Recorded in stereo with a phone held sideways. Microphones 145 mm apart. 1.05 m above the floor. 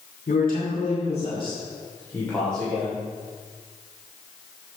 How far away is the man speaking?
About 2.5 m.